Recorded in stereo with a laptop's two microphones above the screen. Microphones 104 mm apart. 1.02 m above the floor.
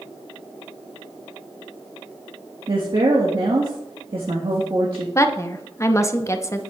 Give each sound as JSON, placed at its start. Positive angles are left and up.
{"t": 2.7, "sound": "a woman speaking", "side_deg": -55, "distance_m": 1.4}
{"t": 5.2, "sound": "a woman speaking", "side_deg": 25, "distance_m": 0.7}